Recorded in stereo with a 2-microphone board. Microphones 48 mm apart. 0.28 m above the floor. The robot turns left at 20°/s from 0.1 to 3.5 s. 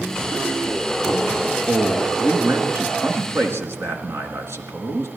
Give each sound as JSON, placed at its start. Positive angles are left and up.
{"t": 1.7, "sound": "a man speaking", "azimuth_deg": -50, "distance_m": 3.5}